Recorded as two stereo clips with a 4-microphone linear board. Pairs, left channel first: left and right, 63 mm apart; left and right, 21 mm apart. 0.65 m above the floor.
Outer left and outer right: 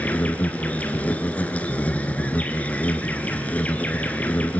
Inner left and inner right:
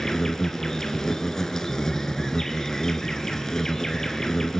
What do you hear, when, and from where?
0.0 s an insect: 25° left (ahead or behind), 1.7 m